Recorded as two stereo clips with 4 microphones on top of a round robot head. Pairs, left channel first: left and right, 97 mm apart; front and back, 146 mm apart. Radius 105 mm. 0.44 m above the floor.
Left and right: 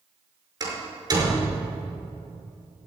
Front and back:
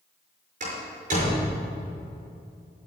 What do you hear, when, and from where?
0.6 s a door slam: 135° right, 5.5 m